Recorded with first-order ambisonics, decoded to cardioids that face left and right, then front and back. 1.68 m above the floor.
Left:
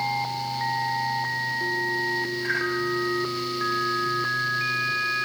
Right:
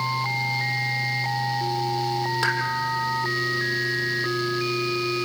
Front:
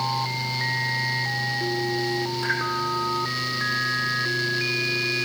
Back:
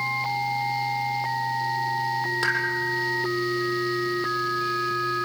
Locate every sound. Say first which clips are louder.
2.4 s a pop: right 5 dB, back 1 dB; 115° right, 7.5 m